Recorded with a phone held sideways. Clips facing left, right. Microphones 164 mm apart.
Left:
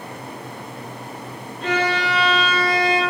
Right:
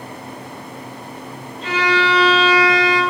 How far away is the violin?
About 0.8 m.